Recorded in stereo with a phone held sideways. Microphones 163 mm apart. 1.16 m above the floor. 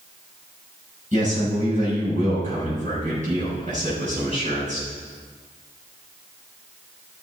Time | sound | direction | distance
1.1 | a man speaking | 50° right (ahead or behind) | 5.5 m